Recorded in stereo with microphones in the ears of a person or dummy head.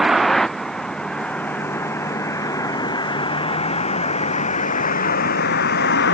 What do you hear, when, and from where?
0.0 s a vehicle: centre (ahead or behind); by 6.1 s 60° left (ahead or behind)